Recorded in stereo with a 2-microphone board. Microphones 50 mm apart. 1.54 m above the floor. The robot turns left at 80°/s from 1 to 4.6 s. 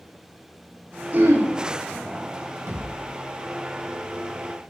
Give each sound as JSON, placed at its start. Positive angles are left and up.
{"t": 1.1, "sound": "throat clearing", "side_deg": -35, "distance_m": 4.5}
{"t": 2.7, "sound": "a thud", "side_deg": -75, "distance_m": 7.5}